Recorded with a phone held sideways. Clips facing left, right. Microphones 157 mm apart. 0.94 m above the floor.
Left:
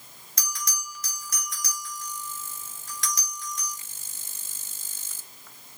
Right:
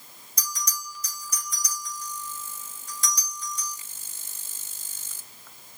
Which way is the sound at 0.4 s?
70° left (ahead or behind).